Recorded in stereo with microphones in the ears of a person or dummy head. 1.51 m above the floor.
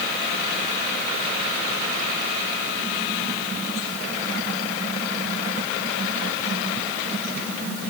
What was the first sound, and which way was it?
Only background noise.